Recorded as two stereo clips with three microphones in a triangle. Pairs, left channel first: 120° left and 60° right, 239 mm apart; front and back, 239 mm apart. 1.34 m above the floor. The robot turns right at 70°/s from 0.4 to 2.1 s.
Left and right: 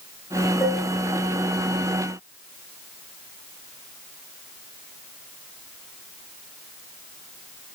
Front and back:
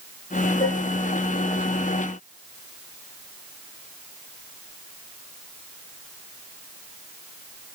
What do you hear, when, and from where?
0.6 s dishes clattering: 60° left, 9 m; by 0.9 s 75° left, 9 m